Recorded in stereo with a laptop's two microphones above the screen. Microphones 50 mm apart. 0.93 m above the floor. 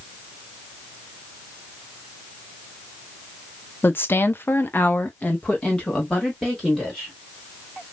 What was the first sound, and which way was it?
A woman speaking, 50° left (ahead or behind).